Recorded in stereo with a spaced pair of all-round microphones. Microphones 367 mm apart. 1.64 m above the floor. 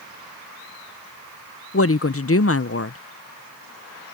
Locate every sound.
1.7 s a woman speaking: 40° left (ahead or behind)